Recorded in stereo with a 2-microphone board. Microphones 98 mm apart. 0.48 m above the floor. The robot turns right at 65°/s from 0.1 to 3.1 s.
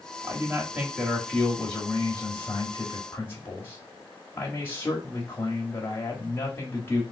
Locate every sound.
0.2 s a man speaking: 25° right (ahead or behind), 1.1 m; by 7.0 s 20° left (ahead or behind), 1.1 m